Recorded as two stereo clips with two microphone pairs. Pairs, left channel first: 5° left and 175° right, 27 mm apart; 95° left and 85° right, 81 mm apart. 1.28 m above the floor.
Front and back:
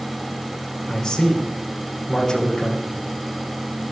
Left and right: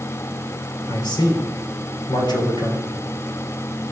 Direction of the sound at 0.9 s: 75° left.